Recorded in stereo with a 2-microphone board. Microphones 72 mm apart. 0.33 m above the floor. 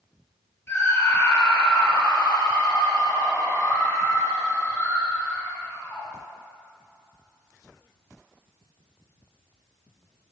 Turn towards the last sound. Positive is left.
turn(degrees=25)  # may be behind; listen again after turning